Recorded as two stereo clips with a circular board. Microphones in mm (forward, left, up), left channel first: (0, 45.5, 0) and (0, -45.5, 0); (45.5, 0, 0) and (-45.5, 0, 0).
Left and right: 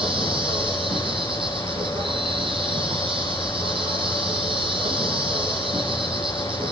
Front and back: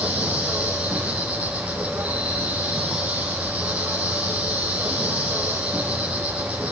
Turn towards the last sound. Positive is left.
turn(degrees=-105)